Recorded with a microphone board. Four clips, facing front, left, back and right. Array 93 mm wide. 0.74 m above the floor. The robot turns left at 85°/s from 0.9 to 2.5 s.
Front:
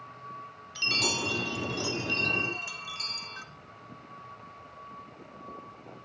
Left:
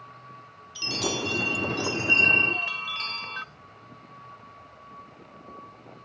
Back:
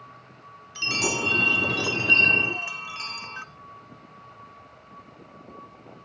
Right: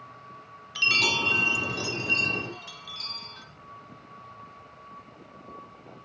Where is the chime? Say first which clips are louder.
Right 4 dB, back 4 dB; 100° right, 0.9 m; by 3.4 s 125° left, 0.9 m.